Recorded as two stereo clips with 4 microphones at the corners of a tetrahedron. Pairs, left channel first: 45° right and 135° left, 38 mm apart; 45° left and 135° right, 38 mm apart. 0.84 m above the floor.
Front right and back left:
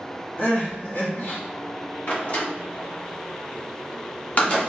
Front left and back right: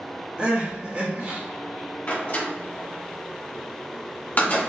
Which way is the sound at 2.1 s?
5° left.